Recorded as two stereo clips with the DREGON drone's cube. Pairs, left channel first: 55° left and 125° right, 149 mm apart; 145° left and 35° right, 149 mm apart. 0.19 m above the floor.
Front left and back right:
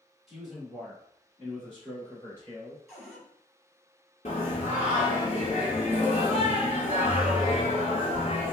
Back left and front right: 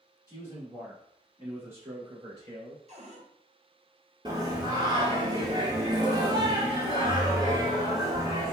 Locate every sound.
0.3 s a man speaking: 150° left, 1.1 m; by 2.8 s 10° right, 1.3 m
2.9 s a cupboard door: 30° right, 1.2 m
4.2 s singing: 25° left, 0.8 m